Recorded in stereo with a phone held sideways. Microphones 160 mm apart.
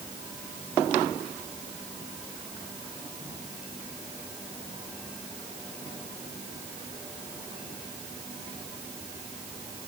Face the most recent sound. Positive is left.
No sound to turn to.